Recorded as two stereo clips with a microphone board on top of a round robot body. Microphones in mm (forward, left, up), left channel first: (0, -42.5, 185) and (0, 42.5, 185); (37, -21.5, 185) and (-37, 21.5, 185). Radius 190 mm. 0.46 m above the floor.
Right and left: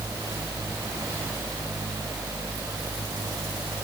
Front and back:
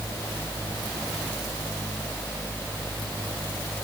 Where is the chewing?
I don't hear chewing.